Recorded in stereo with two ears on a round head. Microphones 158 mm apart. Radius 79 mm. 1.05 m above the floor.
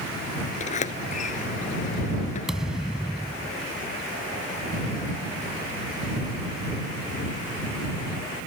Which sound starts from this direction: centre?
A thud, at 2.5 s.